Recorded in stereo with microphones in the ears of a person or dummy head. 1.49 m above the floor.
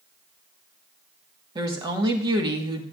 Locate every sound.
1.6 s a woman speaking: 25° right (ahead or behind), 1.4 m